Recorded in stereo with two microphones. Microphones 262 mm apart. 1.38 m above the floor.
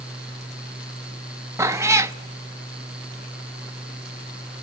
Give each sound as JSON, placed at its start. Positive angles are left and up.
{"t": 1.6, "sound": "a cat meowing", "side_deg": -10, "distance_m": 0.7}